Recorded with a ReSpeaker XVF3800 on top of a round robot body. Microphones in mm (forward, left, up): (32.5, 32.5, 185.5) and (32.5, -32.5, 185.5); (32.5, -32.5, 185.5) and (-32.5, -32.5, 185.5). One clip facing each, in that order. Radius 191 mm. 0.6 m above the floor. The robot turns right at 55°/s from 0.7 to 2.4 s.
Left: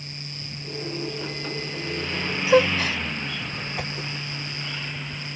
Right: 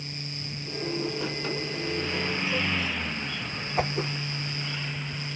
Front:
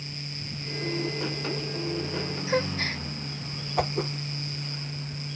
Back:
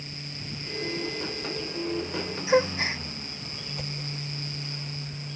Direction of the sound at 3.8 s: 30° right.